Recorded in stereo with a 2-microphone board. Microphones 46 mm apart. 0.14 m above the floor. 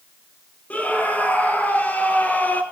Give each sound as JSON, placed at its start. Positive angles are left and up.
{"t": 0.7, "sound": "a scream", "side_deg": 30, "distance_m": 4.5}